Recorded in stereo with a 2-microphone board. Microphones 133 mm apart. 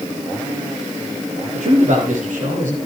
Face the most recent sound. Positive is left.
turn(degrees=-75)  # may be behind; listen again after turning